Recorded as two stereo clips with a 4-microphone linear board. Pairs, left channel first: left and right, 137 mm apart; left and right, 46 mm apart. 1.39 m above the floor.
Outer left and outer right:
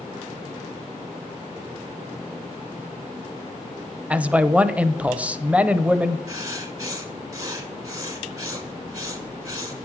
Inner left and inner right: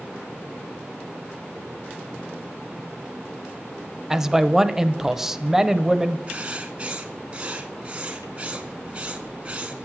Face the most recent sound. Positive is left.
turn(degrees=-30)  # may be behind; listen again after turning